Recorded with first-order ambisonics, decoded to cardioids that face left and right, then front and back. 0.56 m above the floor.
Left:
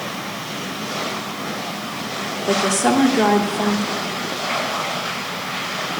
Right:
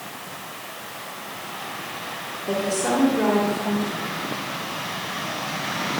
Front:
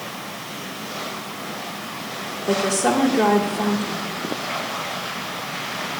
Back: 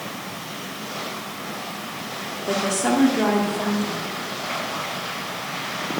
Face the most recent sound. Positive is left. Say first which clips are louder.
# left 5 dB, front 2 dB
turn(degrees=95)